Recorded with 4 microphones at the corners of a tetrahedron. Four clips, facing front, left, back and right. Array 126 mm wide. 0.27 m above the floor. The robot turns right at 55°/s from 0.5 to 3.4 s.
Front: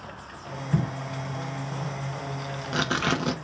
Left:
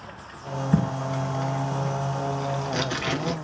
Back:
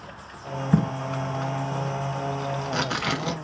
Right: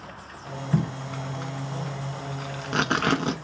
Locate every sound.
0.7 s tape being pulled: 165° left, 0.7 m; by 3.3 s 55° right, 0.7 m